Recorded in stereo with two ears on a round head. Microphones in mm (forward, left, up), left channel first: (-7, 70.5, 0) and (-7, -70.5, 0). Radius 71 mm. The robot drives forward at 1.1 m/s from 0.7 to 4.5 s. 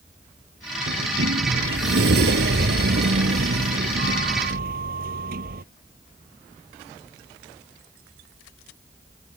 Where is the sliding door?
85° right; by 5.6 s 65° right (ahead or behind).